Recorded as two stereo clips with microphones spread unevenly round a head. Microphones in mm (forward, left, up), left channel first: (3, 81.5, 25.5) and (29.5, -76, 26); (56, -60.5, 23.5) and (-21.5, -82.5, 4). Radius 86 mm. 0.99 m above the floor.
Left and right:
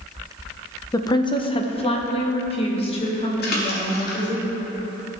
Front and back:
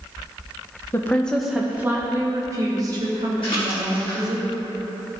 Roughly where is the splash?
Left.